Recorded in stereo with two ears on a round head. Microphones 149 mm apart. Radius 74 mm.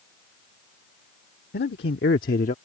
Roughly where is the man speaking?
Left.